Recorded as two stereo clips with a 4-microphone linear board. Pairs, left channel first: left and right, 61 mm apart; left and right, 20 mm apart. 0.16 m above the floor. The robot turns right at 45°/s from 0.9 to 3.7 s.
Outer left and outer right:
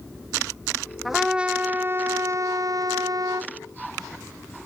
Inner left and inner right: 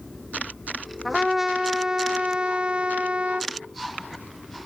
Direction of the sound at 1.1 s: Straight behind.